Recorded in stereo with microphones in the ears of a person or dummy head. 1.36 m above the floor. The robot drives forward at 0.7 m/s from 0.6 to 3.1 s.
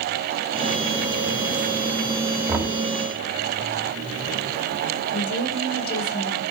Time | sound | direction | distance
2.5 | knocking | 15° right (ahead or behind) | 2.5 m
5.1 | a woman speaking | 55° left (ahead or behind) | 4 m